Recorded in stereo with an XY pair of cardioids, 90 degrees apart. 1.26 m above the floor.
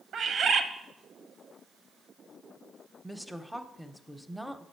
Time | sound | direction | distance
0.1 | a bird | 65° right | 0.6 m
3.0 | a woman speaking | straight ahead | 0.6 m